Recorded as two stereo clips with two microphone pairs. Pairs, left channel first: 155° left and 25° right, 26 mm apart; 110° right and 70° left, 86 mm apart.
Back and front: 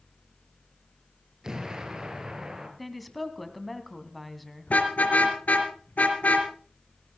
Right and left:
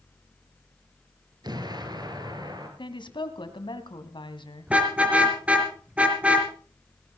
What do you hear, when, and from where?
1.4 s an explosion: 35° left, 3 m
2.8 s a woman speaking: 120° right, 2 m
4.7 s a car horn: 145° left, 3 m